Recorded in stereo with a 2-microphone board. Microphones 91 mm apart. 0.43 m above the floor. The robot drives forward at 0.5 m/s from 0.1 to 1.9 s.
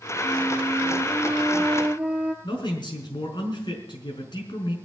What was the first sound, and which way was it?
A flute, 20° right (ahead or behind).